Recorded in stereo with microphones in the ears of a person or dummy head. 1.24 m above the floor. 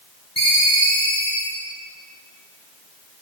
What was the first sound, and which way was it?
A ringtone, 25° left (ahead or behind).